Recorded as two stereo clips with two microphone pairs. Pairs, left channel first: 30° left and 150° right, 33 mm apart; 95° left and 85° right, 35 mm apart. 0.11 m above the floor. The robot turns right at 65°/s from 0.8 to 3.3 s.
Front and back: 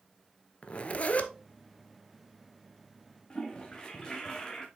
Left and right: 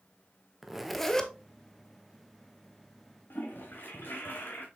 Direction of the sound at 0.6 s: 5° left.